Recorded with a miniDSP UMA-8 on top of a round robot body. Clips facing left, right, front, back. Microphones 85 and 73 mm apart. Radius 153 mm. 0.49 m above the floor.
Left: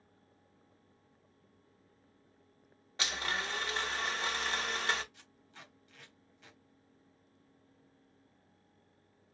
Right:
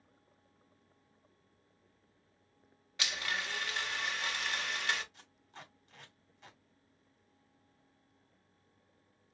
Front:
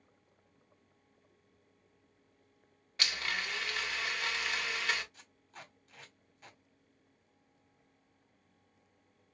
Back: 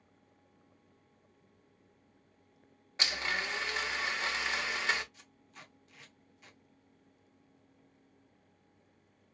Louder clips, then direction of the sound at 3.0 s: Left 2 dB, back 2 dB; 130° left.